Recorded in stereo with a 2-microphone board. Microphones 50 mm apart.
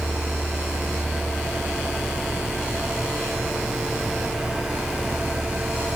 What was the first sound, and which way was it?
Only background noise.